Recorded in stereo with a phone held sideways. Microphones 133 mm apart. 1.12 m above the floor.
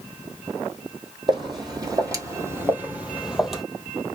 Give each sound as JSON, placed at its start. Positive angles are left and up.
{"t": 1.3, "sound": "footsteps", "side_deg": -40, "distance_m": 1.9}